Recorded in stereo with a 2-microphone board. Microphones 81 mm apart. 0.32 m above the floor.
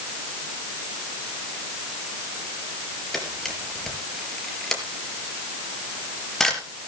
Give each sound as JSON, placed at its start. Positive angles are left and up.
{"t": 3.1, "sound": "a camera shutter", "side_deg": 5, "distance_m": 4.0}